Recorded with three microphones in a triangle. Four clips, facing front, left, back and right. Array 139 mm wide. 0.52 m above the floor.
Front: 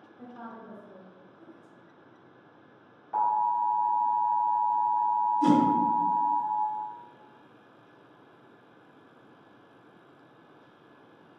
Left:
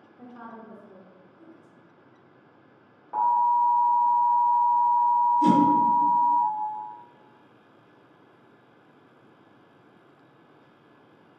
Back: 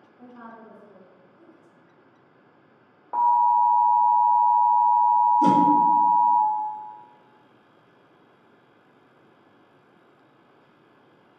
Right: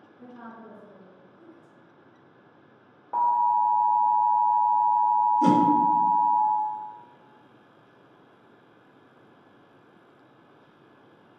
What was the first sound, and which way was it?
A woman speaking, 105° left.